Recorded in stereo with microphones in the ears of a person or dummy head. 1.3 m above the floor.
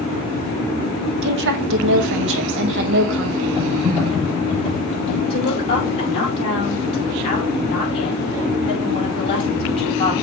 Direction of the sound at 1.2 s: 60° right (ahead or behind).